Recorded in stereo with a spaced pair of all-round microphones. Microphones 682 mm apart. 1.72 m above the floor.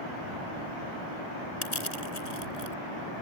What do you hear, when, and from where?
1.6 s crushing: 65° left (ahead or behind)